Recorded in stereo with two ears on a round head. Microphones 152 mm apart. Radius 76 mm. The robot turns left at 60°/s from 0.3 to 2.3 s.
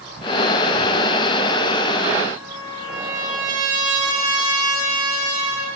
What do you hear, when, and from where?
2.3 s a trumpet: 25° right (ahead or behind), 7 m